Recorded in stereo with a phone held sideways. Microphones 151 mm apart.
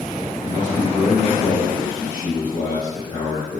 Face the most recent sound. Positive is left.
turn(degrees=30)  # may be behind; listen again after turning